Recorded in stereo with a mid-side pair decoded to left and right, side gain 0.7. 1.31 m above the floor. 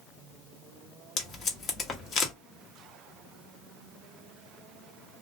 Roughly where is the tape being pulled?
Ahead left.